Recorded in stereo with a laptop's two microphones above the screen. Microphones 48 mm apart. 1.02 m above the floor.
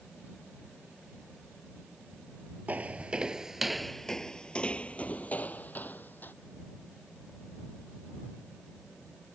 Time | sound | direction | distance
2.7 | footsteps | 35° right (ahead or behind) | ?